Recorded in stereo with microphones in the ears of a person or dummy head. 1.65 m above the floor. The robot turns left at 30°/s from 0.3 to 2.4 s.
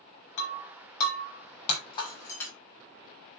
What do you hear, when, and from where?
0.4 s breaking glass: 80° left, 6.5 m; by 2.5 s 20° left (ahead or behind), 6.5 m